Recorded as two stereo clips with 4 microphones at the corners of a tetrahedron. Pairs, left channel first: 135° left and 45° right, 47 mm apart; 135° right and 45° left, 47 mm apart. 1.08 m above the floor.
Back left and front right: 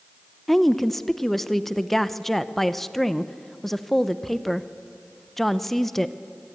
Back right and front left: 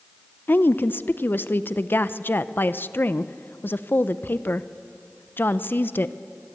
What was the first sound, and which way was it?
A woman speaking, 140° right.